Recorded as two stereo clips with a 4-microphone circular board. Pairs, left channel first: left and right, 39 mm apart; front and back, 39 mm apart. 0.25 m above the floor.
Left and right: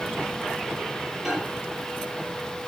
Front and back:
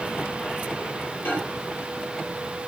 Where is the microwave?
15° right, 5.5 m.